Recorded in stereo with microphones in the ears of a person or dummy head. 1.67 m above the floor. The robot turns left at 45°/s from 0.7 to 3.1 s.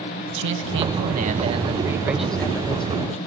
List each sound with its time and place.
0.3 s a man speaking: 110° right, 2.5 m; by 3.2 s 140° left, 2.5 m